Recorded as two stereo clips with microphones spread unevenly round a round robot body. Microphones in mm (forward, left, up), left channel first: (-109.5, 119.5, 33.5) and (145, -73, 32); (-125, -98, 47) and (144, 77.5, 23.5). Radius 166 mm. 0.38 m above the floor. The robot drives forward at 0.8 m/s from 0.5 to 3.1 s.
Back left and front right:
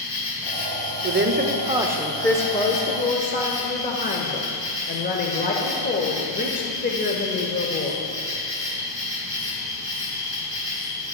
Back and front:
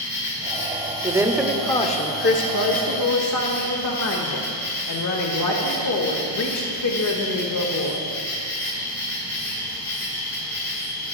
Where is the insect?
165° left, 3 m; by 11.1 s 170° left, 5 m.